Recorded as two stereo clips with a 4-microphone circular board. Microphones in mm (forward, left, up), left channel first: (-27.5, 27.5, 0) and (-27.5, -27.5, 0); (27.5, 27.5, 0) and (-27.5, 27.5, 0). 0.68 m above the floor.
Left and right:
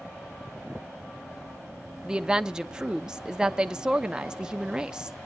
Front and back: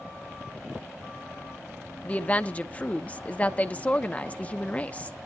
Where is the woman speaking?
30° right, 0.6 m.